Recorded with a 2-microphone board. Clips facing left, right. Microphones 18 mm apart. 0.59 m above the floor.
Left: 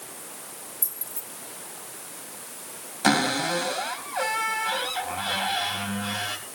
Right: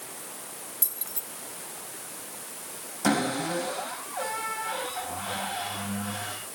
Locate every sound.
0.8 s keys jangling: 75° right (ahead or behind), 1.9 m
3.0 s a cupboard door: 65° left (ahead or behind), 3 m